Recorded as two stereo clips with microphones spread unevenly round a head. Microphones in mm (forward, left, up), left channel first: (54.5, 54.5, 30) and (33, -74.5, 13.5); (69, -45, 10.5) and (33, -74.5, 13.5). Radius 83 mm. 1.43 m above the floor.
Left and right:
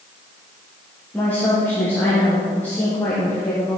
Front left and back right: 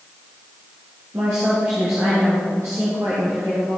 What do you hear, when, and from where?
1.1 s a woman speaking: 160° left, 1.4 m